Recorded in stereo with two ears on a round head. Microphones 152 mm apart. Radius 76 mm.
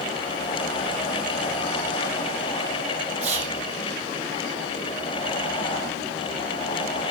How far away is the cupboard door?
No cupboard door in this recording.